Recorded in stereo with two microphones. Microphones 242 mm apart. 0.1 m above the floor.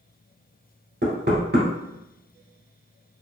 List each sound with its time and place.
1.0 s knocking: 45° right (ahead or behind), 1.2 m